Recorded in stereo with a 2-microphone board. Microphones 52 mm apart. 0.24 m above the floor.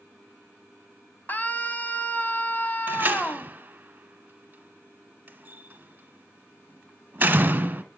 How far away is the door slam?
About 1.4 m.